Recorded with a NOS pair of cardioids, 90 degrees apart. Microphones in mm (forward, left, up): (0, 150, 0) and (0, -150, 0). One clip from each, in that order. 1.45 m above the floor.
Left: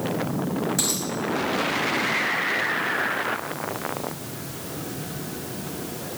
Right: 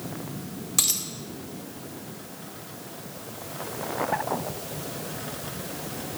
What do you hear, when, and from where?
0.8 s a dropped coin: 65° right, 2.5 m